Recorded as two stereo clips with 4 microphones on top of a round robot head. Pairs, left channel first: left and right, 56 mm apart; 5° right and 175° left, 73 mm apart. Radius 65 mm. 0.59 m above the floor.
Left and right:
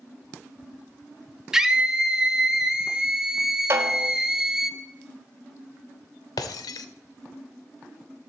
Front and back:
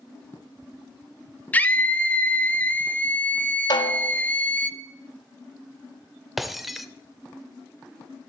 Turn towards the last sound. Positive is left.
turn(degrees=90)